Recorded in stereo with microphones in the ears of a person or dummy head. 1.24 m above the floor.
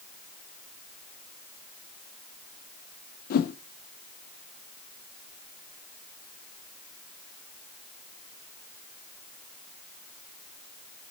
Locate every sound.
3.3 s a whoosh: 45° left (ahead or behind), 0.8 m